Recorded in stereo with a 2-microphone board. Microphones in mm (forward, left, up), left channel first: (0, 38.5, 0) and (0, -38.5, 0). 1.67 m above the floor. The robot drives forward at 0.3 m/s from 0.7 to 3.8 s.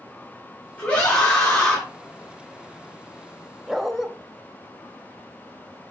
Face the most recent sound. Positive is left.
turn(degrees=0)  # may be behind; listen again after turning